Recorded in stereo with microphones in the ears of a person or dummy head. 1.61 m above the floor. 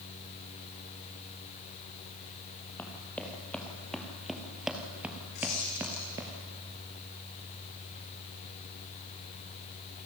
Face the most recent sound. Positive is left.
turn(degrees=55)  # may be behind; listen again after turning